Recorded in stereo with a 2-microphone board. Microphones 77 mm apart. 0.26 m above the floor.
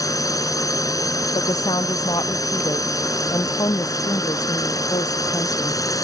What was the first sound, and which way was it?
A drone, 50° left (ahead or behind).